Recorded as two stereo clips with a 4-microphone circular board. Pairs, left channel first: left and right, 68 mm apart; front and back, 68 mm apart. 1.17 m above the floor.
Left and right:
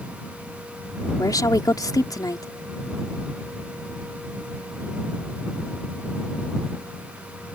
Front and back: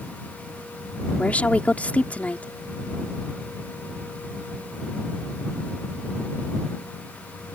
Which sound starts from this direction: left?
A woman speaking, at 1.2 s.